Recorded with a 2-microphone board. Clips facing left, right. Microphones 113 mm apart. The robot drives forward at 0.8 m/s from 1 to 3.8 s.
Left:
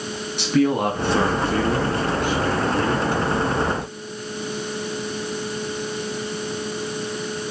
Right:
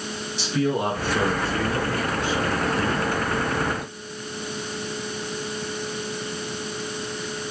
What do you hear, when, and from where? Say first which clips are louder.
0.4 s a man speaking: left 5 dB; 60° left (ahead or behind), 3.5 m; by 3.1 s 45° left (ahead or behind), 4 m